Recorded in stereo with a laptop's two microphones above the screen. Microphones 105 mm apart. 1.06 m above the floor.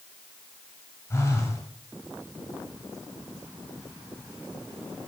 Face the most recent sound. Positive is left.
turn(degrees=25)  # may be behind; listen again after turning